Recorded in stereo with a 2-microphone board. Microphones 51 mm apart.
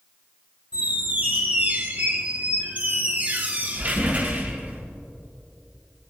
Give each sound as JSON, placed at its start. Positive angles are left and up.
{"t": 0.7, "sound": "a squeak", "side_deg": -35, "distance_m": 3.5}